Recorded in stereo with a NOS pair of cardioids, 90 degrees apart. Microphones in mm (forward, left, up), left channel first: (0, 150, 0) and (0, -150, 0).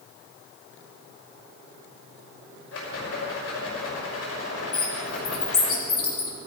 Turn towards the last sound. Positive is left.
turn(degrees=45)